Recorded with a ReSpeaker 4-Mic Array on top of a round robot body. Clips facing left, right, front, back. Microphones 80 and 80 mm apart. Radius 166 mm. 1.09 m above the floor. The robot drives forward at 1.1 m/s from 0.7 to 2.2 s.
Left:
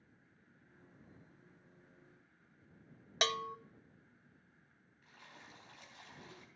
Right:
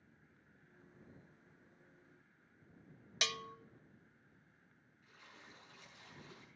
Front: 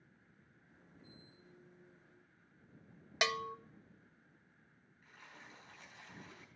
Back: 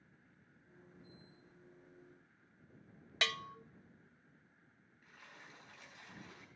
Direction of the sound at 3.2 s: 70° left.